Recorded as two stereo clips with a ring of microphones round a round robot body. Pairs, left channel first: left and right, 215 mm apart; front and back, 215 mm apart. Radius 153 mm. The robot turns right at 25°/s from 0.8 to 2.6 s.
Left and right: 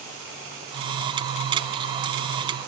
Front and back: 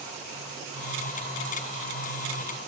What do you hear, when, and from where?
Only background noise.